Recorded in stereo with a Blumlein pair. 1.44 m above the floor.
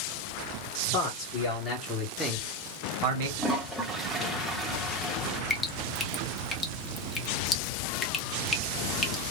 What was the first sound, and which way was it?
A man speaking, 35° left.